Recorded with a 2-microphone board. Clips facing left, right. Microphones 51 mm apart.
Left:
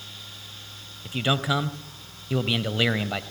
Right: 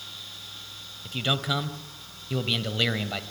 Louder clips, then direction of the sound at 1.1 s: Left 3 dB; 15° left (ahead or behind).